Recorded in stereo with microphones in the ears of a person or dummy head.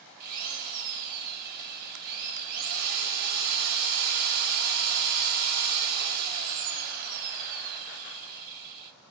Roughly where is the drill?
Right.